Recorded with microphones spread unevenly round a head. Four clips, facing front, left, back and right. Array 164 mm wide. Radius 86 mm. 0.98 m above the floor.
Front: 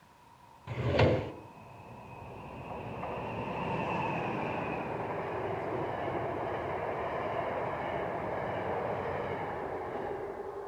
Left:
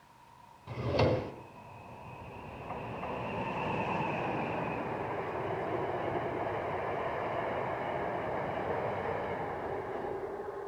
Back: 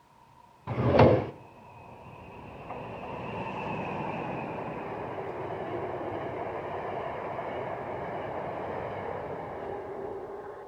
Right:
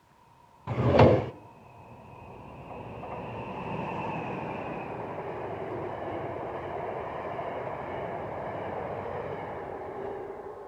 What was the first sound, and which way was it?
A drawer, 145° right.